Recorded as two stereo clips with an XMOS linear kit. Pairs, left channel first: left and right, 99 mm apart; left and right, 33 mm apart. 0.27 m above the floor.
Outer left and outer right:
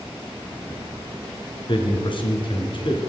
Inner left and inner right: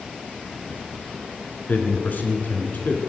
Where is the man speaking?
55° left (ahead or behind), 3 m.